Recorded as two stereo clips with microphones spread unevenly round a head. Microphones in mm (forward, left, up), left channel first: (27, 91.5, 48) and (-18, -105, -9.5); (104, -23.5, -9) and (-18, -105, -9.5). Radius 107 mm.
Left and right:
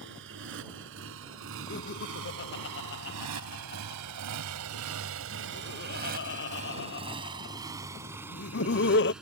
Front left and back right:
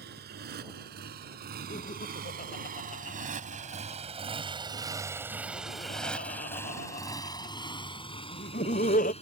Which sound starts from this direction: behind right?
A motorcycle, at 0.0 s.